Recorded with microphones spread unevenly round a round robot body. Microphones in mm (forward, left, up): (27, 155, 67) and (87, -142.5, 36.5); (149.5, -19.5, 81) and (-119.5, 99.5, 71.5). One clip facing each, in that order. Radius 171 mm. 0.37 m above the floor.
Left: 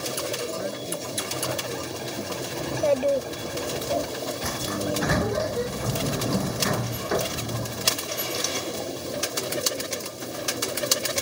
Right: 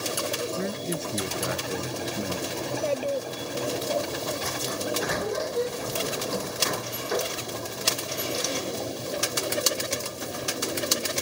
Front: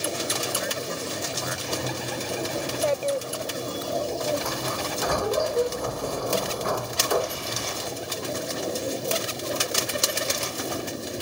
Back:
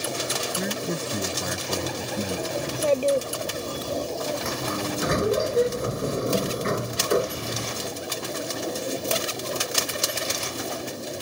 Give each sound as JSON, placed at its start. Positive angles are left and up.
{"t": 0.6, "sound": "a man speaking", "azimuth_deg": -150}
{"t": 2.6, "sound": "a child speaking", "azimuth_deg": 105}
{"t": 4.4, "sound": "a sliding door", "azimuth_deg": 90}